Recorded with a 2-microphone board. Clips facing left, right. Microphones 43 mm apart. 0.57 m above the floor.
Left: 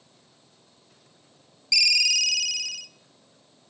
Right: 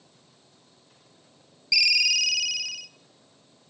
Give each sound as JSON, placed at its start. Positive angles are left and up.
{"t": 1.7, "sound": "a ringtone", "side_deg": -5, "distance_m": 0.6}